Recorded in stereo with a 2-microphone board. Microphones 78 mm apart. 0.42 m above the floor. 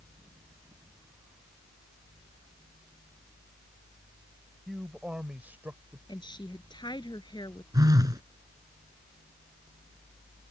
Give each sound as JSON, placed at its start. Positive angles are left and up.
{"t": 4.7, "sound": "a man speaking", "side_deg": 0}
{"t": 6.1, "sound": "a woman speaking", "side_deg": 75}
{"t": 7.7, "sound": "a phone buzzing", "side_deg": -55}